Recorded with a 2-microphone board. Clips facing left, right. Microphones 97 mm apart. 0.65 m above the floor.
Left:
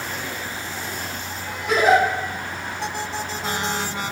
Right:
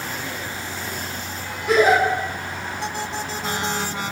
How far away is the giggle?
About 1.1 m.